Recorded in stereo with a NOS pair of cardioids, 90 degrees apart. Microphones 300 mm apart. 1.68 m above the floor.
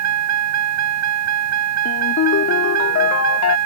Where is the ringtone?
65° left.